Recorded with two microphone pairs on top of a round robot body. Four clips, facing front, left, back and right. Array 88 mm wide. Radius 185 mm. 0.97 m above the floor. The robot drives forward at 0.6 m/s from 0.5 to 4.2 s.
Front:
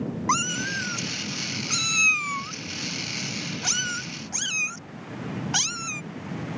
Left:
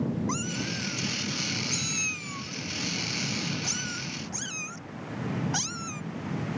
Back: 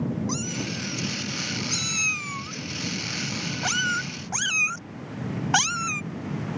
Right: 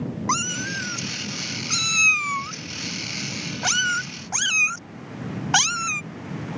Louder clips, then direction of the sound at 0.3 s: Right 6 dB, front 5 dB; 45° right.